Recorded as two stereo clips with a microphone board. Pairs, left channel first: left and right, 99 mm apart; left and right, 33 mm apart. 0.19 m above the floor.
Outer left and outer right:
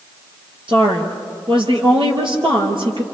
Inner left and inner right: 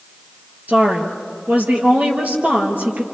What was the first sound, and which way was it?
A woman speaking, 55° right (ahead or behind).